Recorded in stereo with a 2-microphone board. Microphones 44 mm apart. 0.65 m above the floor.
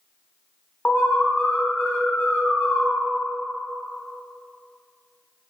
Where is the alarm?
50° left (ahead or behind), 0.5 m.